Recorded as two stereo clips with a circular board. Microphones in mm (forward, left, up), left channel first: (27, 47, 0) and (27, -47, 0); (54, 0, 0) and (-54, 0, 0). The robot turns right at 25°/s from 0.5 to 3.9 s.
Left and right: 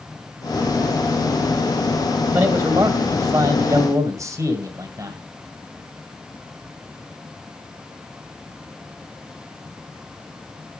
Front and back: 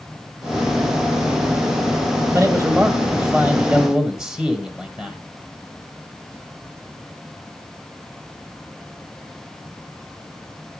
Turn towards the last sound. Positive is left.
turn(degrees=-100)